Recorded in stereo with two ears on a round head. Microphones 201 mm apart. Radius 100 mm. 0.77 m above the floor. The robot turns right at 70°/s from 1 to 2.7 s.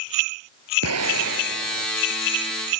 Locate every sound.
0.8 s an explosion: 75° right; by 1.9 s 15° right